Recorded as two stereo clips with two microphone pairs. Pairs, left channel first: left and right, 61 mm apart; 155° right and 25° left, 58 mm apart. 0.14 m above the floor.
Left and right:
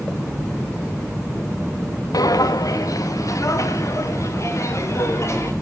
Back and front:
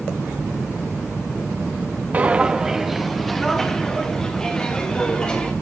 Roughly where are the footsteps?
Left.